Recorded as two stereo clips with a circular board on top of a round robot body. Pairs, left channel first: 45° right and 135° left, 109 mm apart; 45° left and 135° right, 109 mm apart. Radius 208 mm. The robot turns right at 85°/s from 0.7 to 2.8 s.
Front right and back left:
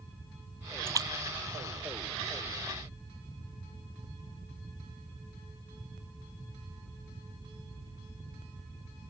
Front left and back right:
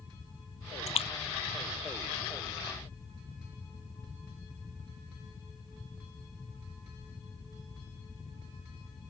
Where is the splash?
65° left; by 2.6 s 145° right.